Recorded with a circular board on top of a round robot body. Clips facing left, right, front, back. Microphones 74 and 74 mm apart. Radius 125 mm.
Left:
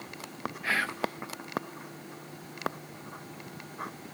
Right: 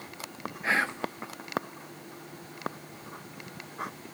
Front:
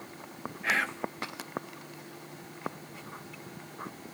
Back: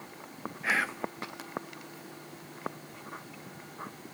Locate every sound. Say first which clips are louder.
0.6 s whispering: right 2 dB, even; 100° right, 0.7 m